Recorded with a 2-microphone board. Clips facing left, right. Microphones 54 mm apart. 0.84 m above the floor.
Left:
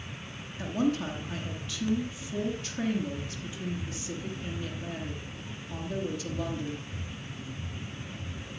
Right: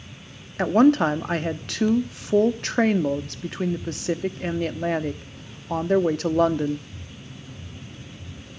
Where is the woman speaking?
65° right (ahead or behind), 1.2 m.